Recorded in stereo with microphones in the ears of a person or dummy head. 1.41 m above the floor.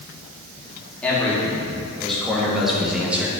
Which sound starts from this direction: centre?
A man speaking, at 1.0 s.